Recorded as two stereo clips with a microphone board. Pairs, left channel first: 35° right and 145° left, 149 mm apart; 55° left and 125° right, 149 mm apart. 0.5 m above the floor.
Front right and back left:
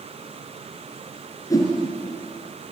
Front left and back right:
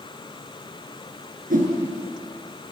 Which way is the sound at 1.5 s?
100° right.